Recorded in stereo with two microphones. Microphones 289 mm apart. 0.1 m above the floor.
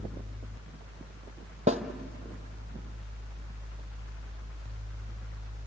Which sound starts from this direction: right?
A snare drum, at 1.7 s.